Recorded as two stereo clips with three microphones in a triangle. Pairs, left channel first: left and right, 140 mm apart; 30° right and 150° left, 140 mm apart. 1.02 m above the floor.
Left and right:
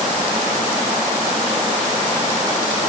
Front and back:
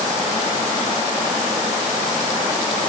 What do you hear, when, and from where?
Only background noise.